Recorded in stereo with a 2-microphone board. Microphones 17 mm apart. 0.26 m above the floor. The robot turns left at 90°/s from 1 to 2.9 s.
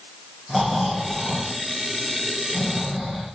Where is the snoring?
170° right, 5.5 m; by 3.3 s 20° left, 5.5 m.